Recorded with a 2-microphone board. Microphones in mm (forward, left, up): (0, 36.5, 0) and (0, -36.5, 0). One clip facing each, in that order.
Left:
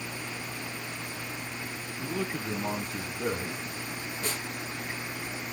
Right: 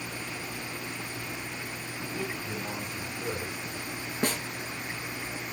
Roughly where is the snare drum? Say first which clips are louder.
Right 7 dB; right.